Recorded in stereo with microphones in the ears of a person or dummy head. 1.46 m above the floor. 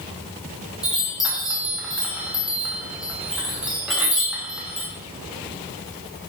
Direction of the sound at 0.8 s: 5° right (ahead or behind).